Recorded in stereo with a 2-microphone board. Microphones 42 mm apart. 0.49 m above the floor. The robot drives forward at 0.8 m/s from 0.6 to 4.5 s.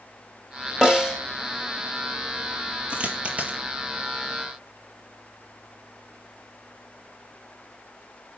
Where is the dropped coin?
30° right (ahead or behind), 2.5 m; by 3.6 s 35° right (ahead or behind), 2 m.